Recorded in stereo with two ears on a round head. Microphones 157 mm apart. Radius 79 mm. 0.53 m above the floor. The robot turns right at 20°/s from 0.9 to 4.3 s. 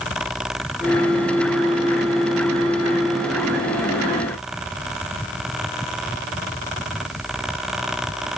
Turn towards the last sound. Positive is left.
No sound to turn to.